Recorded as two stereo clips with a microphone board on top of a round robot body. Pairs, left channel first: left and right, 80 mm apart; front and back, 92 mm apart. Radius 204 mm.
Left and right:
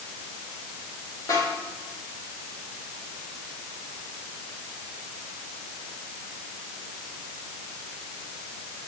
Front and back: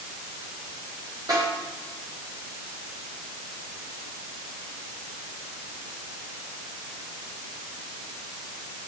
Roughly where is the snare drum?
Behind left.